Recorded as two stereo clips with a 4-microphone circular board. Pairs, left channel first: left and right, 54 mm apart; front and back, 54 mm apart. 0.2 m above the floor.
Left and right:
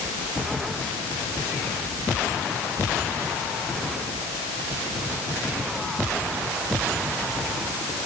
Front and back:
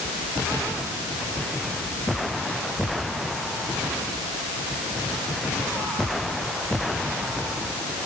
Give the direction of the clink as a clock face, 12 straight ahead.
I don't hear a clink.